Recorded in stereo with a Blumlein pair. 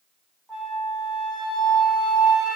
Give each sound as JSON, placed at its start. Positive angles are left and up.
{"t": 0.5, "sound": "a flute", "azimuth_deg": 5, "distance_m": 3.0}